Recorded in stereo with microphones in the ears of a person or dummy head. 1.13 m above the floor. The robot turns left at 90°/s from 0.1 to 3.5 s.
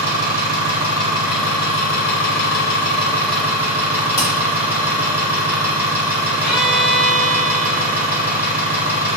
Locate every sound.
0.0 s an engine running: 60° right, 1.2 m; by 9.2 s 5° right, 1.2 m
4.2 s hammering: 25° left (ahead or behind), 1.1 m
6.4 s a violin: 15° left (ahead or behind), 1.5 m